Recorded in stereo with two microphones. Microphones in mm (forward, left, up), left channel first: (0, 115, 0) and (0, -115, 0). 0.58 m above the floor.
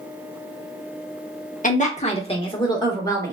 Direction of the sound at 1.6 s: 35° left (ahead or behind).